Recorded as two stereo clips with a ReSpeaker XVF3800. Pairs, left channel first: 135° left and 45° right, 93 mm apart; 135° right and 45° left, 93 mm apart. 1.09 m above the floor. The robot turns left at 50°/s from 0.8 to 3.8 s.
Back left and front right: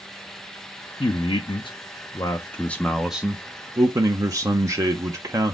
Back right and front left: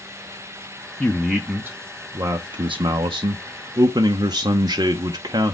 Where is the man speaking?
145° left, 0.6 m; by 5.5 s 5° left, 0.6 m.